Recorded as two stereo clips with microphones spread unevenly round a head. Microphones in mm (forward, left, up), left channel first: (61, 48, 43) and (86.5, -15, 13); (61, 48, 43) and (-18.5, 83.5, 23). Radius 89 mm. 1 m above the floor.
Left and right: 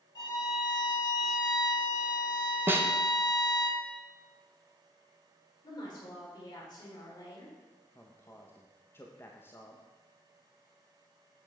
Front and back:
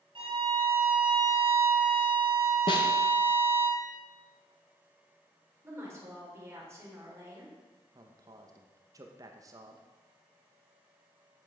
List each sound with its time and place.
0.1 s a violin: 130° left, 2.5 m
2.7 s a snare drum: 60° right, 1.0 m
5.6 s a woman speaking: 95° left, 4 m
8.0 s a man speaking: 170° right, 0.9 m